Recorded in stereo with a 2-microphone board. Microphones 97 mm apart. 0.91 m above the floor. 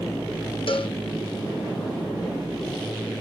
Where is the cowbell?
65° left (ahead or behind), 0.8 m.